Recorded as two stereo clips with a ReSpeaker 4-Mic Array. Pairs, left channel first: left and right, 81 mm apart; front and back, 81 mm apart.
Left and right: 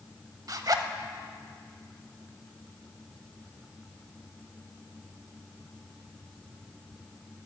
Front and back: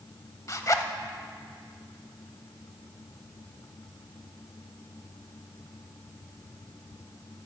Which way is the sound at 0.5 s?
50° right.